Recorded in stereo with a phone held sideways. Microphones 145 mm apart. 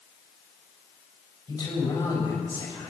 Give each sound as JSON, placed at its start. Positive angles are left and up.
{"t": 1.5, "sound": "a man speaking", "side_deg": 25, "distance_m": 7.0}